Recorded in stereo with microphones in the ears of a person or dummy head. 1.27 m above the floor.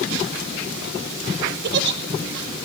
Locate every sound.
1.6 s a giggle: 50° right (ahead or behind), 1.2 m